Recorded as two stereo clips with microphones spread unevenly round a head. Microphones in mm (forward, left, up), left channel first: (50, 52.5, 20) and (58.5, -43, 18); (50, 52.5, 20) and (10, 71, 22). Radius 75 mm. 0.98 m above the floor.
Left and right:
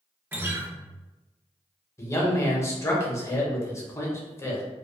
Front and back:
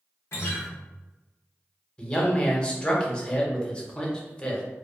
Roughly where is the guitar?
Ahead.